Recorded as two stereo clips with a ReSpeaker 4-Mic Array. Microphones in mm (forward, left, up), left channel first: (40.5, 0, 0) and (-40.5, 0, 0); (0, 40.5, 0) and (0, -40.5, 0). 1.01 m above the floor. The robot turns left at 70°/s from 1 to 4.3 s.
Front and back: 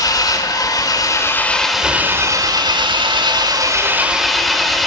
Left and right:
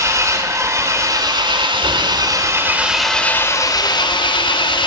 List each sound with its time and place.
0.0 s an engine running: 40° right, 2.5 m; by 4.9 s 90° left, 2.5 m